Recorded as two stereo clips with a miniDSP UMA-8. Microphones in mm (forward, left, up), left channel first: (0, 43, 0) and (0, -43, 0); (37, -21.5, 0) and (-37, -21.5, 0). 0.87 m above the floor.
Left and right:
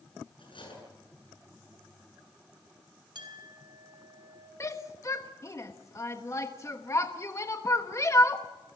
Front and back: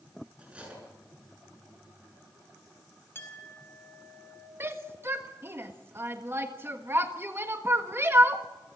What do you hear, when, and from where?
0.4 s cutlery clinking: 105° left, 7.5 m
3.1 s a clink: 60° right, 4.5 m
4.6 s a shout: 135° left, 1.4 m